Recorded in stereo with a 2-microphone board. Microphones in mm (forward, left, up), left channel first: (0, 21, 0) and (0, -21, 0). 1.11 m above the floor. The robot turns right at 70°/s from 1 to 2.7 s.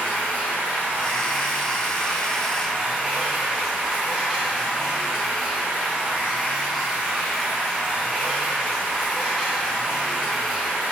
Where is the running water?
75° left, 0.8 m; by 10.9 s 165° right, 0.8 m.